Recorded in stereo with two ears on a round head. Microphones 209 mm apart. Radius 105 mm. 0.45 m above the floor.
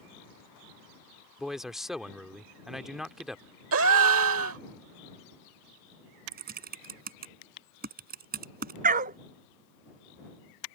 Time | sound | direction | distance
1.4 | a man speaking | centre (ahead or behind) | ?
3.7 | a gasp | 65° right (ahead or behind) | ?
6.3 | typing on a keyboard | 40° right (ahead or behind) | ?
8.8 | a dog barking | 40° right (ahead or behind) | ?